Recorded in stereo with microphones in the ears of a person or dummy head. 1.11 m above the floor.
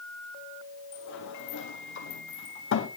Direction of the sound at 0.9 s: 60° left (ahead or behind).